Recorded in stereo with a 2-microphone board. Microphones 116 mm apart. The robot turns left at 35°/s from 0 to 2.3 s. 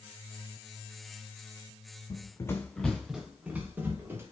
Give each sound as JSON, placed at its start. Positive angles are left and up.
{"t": 2.1, "sound": "running footsteps", "side_deg": 40, "distance_m": 0.7}